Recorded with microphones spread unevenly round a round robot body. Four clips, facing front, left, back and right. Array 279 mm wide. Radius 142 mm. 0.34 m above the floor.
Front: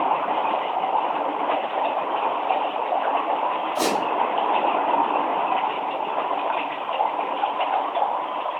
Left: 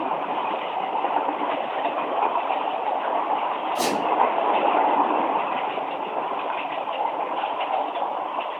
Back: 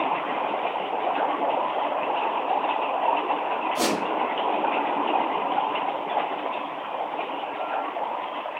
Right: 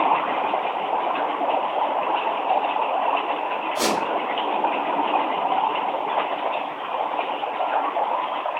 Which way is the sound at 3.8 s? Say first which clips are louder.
Right 2 dB, front 2 dB; 155° left.